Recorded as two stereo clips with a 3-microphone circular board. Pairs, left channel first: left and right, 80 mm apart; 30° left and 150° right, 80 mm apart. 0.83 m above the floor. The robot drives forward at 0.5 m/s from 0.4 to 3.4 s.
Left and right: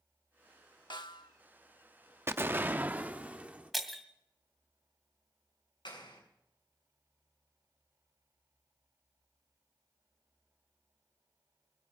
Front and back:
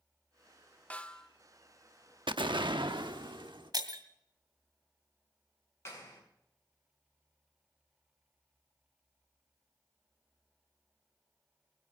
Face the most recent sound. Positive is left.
turn(degrees=85)